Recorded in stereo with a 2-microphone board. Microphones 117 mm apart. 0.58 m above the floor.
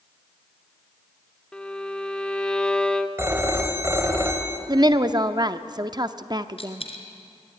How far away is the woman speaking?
About 0.8 m.